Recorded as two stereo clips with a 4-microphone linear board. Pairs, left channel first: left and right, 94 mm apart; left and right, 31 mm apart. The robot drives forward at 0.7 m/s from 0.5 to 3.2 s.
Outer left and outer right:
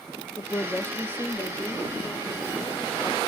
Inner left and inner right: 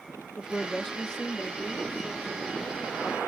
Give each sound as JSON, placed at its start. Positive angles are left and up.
{"t": 0.4, "sound": "a woman speaking", "side_deg": 25, "distance_m": 0.6}